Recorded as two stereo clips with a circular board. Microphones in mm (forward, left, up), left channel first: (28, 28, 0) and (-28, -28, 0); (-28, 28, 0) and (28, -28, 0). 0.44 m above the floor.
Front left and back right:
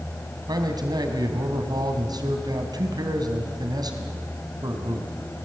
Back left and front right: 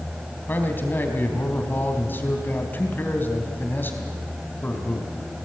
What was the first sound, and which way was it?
A man speaking, 160° right.